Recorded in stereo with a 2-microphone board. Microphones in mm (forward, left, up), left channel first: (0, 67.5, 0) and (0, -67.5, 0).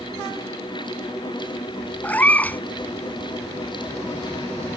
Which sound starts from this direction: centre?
A cat meowing, at 2.0 s.